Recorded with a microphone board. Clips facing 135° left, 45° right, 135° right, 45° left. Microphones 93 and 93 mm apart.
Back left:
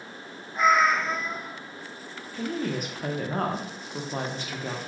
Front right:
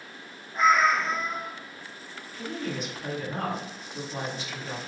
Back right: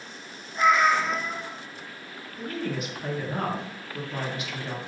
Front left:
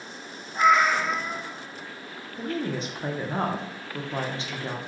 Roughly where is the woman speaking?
Left.